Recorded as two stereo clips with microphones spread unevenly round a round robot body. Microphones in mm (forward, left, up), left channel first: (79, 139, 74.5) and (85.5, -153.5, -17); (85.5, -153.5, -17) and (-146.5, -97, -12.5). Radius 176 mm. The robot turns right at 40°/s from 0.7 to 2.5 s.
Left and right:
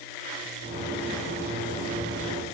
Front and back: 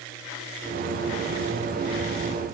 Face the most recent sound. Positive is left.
No sound to turn to.